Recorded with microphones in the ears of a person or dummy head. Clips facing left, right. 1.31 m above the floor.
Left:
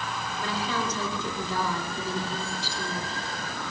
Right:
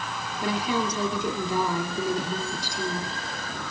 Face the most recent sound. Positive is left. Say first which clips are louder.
# right 5 dB
turn(degrees=-15)  # may be behind; listen again after turning